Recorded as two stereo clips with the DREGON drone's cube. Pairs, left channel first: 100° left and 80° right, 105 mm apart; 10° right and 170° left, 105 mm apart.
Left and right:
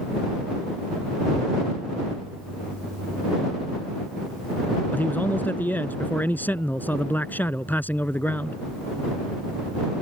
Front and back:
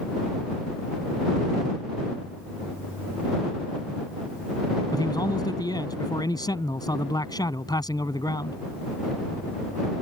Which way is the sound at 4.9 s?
30° left.